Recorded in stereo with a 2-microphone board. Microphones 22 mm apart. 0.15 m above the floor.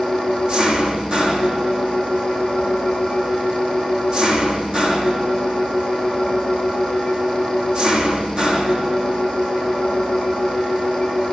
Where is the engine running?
30° right (ahead or behind), 5.5 m.